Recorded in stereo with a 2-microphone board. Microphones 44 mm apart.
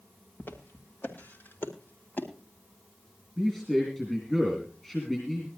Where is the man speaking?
10° left (ahead or behind), 4 m.